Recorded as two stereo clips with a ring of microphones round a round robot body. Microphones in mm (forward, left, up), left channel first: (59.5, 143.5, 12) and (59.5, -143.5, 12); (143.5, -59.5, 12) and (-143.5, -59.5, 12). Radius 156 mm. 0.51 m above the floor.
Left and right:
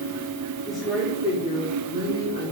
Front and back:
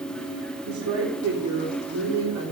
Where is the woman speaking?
175° left, 1.0 m; by 2.5 s 145° right, 1.7 m.